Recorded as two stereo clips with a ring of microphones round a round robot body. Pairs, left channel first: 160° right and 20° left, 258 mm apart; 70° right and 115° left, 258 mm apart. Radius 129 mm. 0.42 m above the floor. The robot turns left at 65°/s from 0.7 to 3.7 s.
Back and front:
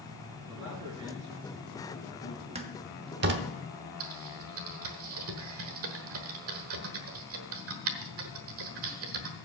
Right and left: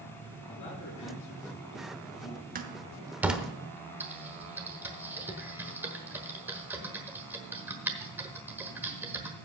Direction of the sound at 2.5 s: 75° left.